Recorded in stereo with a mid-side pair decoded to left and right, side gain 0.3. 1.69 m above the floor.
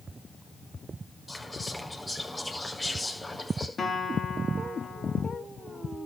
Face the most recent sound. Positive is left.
turn(degrees=50)